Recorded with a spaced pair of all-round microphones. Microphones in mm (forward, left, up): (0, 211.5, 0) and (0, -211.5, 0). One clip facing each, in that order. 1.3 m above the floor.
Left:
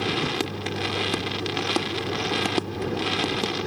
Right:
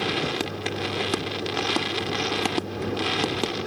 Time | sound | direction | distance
0.0 | a vehicle | 10° left (ahead or behind) | ?